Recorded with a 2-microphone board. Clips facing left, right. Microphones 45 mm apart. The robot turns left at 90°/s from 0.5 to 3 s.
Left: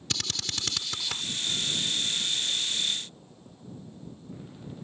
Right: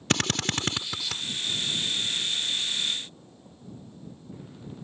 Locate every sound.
0.1 s a drill: 50° right (ahead or behind); by 1.2 s 10° left (ahead or behind)